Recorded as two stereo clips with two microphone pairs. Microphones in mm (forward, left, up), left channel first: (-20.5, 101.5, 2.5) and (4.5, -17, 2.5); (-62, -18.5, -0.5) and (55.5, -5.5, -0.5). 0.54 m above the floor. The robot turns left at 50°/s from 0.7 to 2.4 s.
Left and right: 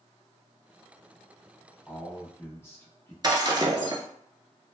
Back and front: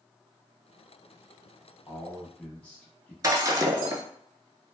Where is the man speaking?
150° left, 0.7 m; by 3.1 s 125° left, 0.7 m.